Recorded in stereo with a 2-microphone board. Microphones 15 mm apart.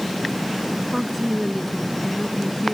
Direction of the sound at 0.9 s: 5° right (ahead or behind).